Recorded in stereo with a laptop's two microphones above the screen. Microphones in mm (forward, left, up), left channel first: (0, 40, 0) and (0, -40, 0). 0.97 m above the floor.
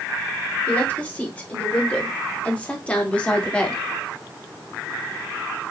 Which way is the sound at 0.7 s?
20° left (ahead or behind).